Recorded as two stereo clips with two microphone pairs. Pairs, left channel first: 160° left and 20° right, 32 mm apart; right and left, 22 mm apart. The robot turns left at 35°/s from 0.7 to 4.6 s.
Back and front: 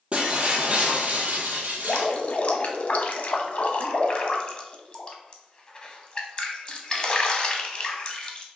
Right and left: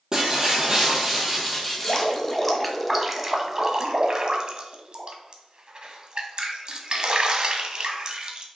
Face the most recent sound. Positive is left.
turn(degrees=110)